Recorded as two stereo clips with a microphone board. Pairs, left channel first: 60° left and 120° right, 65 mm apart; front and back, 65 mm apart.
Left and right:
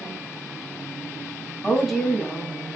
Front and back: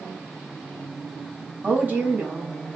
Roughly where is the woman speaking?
Behind left.